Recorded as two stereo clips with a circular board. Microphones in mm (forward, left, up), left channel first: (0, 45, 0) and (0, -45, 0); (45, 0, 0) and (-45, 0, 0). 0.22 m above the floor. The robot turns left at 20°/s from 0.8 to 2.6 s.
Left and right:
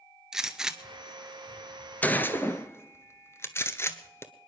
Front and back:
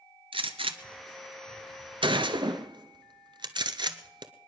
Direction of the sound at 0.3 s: 175° right.